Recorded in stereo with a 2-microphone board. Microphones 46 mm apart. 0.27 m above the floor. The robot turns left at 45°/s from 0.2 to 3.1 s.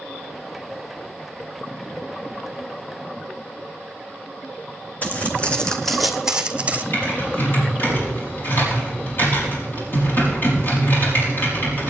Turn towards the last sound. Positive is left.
turn(degrees=50)  # may be behind; listen again after turning